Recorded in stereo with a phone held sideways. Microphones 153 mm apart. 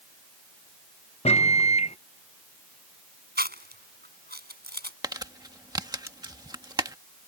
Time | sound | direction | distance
1.2 | a microwave | 45° left (ahead or behind) | ?
3.4 | chewing | 90° right | ?
5.0 | crumpling | 25° right (ahead or behind) | ?